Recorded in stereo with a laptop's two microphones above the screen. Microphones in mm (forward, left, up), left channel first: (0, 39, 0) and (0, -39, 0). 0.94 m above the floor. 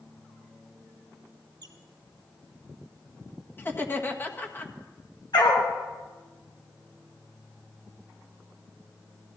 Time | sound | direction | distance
1.6 | a squeak | 65° right (ahead or behind) | 1.6 m
3.6 | laughter | 30° left (ahead or behind) | 1.7 m
5.3 | a dog barking | 65° left (ahead or behind) | 4 m